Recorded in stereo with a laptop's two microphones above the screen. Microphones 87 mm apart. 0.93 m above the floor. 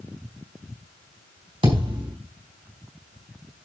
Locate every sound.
1.6 s a thud: 75° right (ahead or behind), 4 m